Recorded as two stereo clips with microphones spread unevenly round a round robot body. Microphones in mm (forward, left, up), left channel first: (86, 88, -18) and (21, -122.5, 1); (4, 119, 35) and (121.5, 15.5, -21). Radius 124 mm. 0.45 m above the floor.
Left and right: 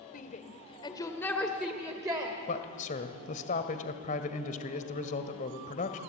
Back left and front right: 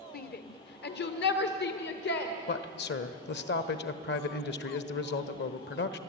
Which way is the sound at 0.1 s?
110° left.